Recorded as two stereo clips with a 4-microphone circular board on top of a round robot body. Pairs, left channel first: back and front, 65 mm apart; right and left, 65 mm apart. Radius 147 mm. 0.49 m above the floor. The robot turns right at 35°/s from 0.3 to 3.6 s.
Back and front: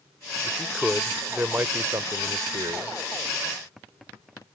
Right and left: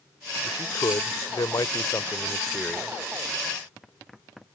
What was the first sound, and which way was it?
A man speaking, 100° right.